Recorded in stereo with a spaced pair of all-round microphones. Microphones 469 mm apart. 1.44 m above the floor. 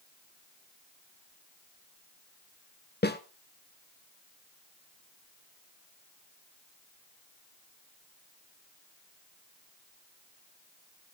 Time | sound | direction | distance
3.0 | a snare drum | 20° left (ahead or behind) | 1.2 m